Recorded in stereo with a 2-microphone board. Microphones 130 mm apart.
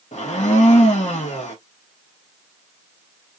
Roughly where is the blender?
Left.